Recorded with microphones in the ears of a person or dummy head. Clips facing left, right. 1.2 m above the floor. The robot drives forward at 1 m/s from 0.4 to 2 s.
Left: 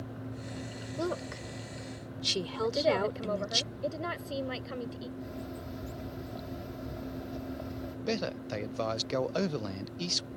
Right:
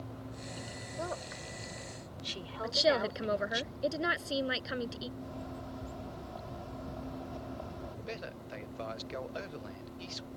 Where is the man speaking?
60° left (ahead or behind).